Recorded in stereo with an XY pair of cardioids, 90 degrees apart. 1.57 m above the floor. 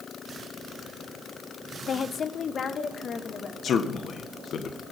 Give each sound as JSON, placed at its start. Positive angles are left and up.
{"t": 1.9, "sound": "a woman speaking", "azimuth_deg": 55, "distance_m": 0.8}
{"t": 3.6, "sound": "a man speaking", "azimuth_deg": 65, "distance_m": 1.8}